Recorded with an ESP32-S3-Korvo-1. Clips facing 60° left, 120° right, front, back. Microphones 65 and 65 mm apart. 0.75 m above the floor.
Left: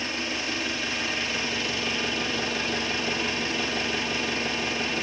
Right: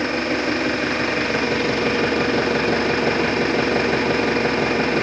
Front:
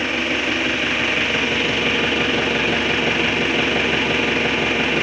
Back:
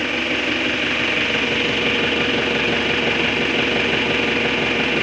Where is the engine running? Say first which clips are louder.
Right 10 dB, even; 90° right, 1.1 m.